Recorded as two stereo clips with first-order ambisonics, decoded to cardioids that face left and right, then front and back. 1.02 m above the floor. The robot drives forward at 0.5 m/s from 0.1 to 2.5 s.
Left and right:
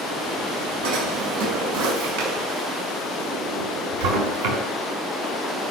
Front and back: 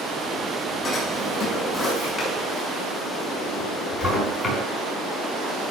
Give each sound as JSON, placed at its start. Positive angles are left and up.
{"t": 0.8, "sound": "a drawer", "azimuth_deg": -85, "distance_m": 5.5}